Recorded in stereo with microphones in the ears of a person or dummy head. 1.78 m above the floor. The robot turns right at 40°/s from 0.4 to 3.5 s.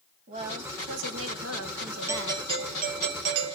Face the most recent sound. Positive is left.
turn(degrees=-115)